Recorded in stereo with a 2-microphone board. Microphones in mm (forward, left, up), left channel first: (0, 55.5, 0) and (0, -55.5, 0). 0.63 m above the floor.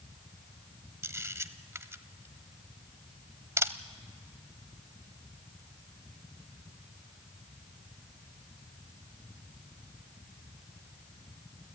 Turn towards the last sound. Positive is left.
turn(degrees=-25)  # may be behind; listen again after turning